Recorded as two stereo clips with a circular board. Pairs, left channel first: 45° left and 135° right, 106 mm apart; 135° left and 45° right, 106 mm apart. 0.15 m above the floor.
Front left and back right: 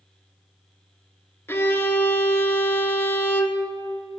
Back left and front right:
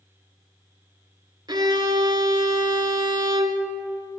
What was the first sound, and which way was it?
A violin, 15° right.